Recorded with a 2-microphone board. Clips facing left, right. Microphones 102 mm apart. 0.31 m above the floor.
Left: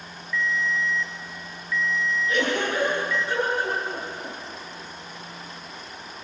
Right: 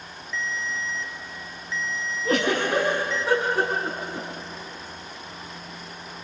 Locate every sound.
0.3 s a ringtone: 25° right (ahead or behind), 1.5 m
2.2 s a giggle: 75° right (ahead or behind), 8.5 m